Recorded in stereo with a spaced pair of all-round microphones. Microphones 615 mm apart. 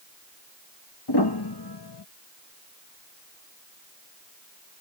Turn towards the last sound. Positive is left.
turn(degrees=40)  # may be behind; listen again after turning